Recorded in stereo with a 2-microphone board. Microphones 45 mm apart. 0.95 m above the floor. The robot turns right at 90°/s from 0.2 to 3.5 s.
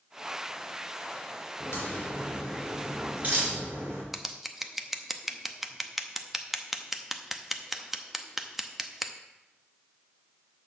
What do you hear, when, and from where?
1.6 s a crack: 75° left (ahead or behind), 4 m; by 4.0 s 65° right (ahead or behind), 4 m
4.1 s scissors: 5° right (ahead or behind), 0.6 m